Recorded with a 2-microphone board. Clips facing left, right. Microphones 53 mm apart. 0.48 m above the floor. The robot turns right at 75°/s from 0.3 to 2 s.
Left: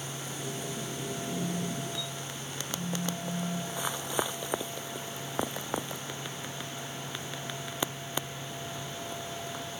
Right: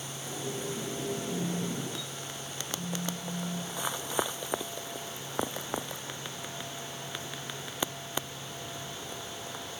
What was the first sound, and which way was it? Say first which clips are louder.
A phone buzzing: even; 5° left.